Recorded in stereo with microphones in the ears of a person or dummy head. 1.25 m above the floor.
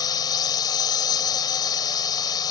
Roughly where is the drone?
Left.